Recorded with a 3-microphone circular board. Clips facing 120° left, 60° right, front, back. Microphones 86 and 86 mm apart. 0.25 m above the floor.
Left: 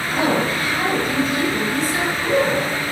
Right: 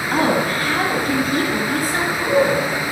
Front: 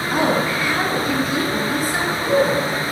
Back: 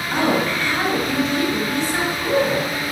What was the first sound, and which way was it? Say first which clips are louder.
A woman speaking: right 1 dB, even; 80° right.